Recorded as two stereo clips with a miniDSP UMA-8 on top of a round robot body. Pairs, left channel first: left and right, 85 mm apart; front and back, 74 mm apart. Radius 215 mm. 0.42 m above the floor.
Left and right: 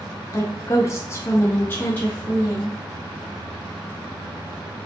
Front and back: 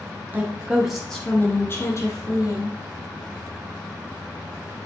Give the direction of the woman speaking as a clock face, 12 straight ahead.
8 o'clock.